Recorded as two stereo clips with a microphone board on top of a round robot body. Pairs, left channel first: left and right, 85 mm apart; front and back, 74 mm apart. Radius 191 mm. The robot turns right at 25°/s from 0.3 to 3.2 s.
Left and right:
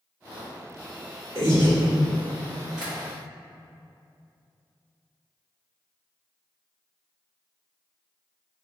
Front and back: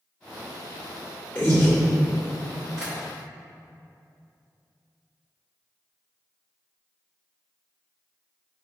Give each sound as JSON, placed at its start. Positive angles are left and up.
{"t": 1.4, "sound": "breathing", "azimuth_deg": -65, "distance_m": 1.6}
{"t": 2.8, "sound": "tapping", "azimuth_deg": -140, "distance_m": 0.8}